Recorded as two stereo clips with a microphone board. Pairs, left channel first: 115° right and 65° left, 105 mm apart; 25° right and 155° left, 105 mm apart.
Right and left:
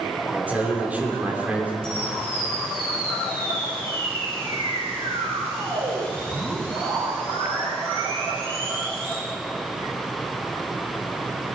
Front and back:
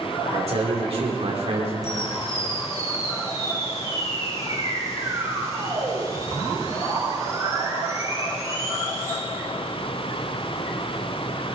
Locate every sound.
0.3 s a man speaking: 145° left, 3 m
1.8 s a camera shutter: 100° left, 4 m